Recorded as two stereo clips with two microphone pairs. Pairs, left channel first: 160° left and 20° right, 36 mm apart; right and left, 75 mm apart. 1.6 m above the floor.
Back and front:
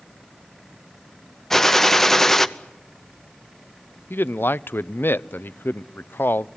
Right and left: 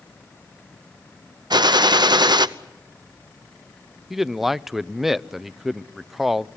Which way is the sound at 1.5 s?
80° left.